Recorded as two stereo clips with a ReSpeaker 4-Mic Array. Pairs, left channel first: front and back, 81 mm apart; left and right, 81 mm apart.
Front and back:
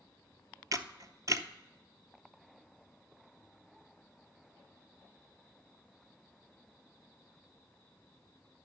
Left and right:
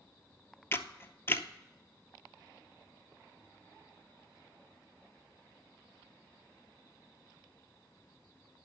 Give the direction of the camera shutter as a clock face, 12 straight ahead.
7 o'clock.